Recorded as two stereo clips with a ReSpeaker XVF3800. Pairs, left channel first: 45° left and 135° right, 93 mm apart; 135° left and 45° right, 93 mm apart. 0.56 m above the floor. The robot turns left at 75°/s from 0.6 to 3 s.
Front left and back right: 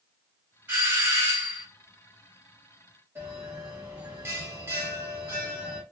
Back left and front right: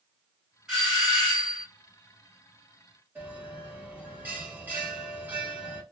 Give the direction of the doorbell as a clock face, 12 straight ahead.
4 o'clock.